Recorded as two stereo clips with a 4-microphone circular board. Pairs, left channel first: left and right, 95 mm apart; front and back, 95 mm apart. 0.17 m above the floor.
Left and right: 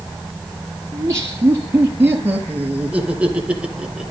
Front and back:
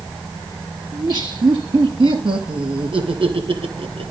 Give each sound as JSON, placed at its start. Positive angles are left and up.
{"t": 0.9, "sound": "laughter", "azimuth_deg": -145, "distance_m": 4.0}